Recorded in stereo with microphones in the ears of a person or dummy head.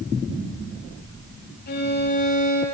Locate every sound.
1.7 s a violin: 40° left (ahead or behind), 6.5 m